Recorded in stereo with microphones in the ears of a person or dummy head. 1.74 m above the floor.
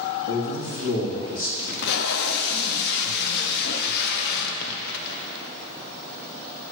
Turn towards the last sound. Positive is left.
turn(degrees=65)  # may be behind; listen again after turning